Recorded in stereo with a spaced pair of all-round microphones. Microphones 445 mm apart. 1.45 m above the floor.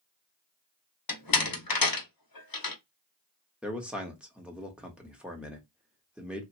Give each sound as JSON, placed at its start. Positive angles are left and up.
{"t": 1.1, "sound": "a door slam", "side_deg": 50, "distance_m": 0.7}
{"t": 3.6, "sound": "a man speaking", "side_deg": 0, "distance_m": 0.8}